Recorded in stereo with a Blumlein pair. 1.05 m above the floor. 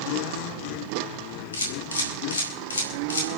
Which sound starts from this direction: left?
A camera shutter, at 1.5 s.